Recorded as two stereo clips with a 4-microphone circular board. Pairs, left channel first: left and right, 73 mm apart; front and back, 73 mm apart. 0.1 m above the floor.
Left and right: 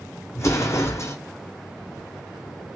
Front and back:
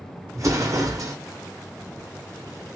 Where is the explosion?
140° left, 0.8 m.